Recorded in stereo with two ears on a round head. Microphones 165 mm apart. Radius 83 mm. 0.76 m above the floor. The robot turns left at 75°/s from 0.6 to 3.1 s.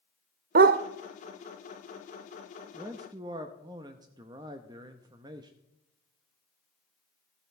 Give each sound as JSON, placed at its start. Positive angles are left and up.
{"t": 0.6, "sound": "a dog barking", "side_deg": -50, "distance_m": 0.6}
{"t": 2.7, "sound": "a man speaking", "side_deg": -10, "distance_m": 0.7}